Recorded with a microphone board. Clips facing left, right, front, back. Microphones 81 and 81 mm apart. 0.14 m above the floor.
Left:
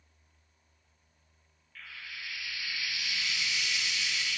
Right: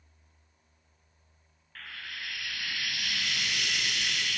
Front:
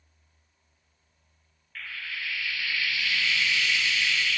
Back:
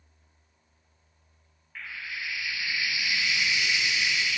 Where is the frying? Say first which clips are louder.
Right 3 dB, even; 110° right, 1.8 m.